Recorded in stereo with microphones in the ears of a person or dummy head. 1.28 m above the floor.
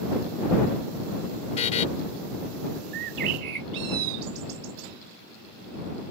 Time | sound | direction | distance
1.6 | a buzzer | 45° left (ahead or behind) | ?
2.9 | a bird | 60° right (ahead or behind) | ?